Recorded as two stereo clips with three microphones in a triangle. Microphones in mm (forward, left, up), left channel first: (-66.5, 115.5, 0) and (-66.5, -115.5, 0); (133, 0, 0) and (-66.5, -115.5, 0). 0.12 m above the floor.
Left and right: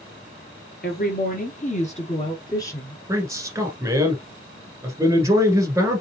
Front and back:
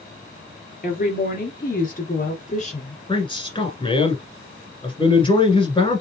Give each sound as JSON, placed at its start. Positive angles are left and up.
{"t": 0.8, "sound": "a woman speaking", "azimuth_deg": 65, "distance_m": 2.5}
{"t": 3.1, "sound": "a man speaking", "azimuth_deg": -25, "distance_m": 1.4}